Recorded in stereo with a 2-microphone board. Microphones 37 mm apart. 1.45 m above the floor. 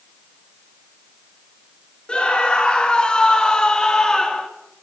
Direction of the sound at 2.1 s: 20° left (ahead or behind).